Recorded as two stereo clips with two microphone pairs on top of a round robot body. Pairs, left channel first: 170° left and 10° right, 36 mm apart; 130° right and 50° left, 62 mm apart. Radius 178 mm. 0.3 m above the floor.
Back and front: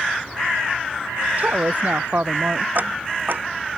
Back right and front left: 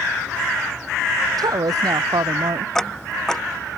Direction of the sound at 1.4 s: 35° left.